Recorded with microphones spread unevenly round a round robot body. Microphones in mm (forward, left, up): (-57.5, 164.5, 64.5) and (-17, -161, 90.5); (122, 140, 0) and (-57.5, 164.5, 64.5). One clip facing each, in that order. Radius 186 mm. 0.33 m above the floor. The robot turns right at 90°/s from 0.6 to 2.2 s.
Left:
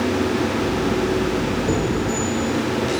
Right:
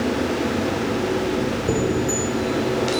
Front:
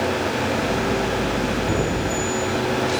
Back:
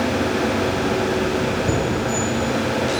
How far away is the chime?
About 2 m.